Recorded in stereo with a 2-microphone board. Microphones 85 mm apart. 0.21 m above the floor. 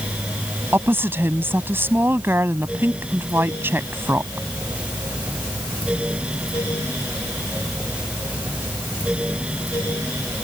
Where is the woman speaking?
25° right (ahead or behind).